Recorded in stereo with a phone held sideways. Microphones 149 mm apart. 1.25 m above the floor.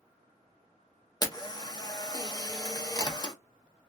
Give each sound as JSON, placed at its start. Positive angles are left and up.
{"t": 1.2, "sound": "a camera shutter", "side_deg": 30, "distance_m": 0.8}